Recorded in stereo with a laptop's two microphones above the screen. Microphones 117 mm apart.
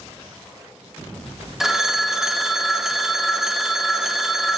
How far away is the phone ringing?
About 0.7 m.